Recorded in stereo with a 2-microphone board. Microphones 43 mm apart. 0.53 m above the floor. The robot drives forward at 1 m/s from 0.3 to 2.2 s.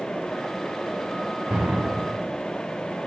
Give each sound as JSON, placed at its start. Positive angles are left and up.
{"t": 1.5, "sound": "an explosion", "side_deg": -30, "distance_m": 2.0}